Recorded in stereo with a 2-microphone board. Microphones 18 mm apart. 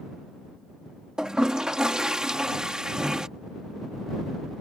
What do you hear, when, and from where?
1.2 s a toilet flushing: 35° right (ahead or behind)